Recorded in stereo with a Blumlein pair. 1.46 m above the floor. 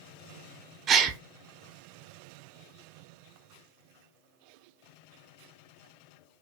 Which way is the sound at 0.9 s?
25° right.